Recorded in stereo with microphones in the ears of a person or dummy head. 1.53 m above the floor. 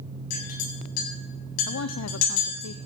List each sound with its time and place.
0.3 s a clink: 45° left (ahead or behind), 8 m
1.7 s a woman speaking: 70° left (ahead or behind), 0.6 m